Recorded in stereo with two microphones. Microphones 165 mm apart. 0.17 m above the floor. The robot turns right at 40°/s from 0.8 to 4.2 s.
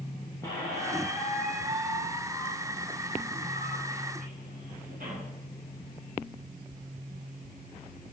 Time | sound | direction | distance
0.4 | a squeak | 160° left | 4.5 m